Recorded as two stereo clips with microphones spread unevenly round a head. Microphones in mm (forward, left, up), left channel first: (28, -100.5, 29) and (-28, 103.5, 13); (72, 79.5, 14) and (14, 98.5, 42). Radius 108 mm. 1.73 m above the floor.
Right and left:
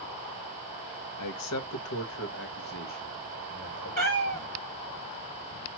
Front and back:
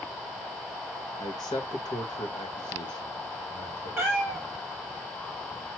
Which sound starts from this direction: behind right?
A cat meowing, at 4.0 s.